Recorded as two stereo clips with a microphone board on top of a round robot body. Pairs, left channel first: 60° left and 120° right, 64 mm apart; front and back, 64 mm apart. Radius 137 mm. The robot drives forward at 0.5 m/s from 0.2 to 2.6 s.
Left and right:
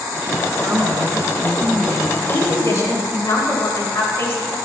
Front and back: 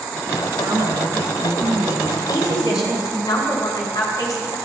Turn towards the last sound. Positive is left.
turn(degrees=15)